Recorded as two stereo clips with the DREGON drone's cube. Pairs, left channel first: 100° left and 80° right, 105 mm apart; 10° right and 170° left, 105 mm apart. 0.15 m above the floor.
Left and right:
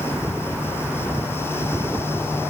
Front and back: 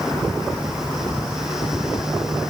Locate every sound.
Only background noise.